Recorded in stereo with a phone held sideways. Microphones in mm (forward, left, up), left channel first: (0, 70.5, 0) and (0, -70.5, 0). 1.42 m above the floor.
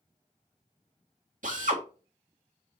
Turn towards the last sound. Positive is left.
turn(degrees=-70)  # may be behind; listen again after turning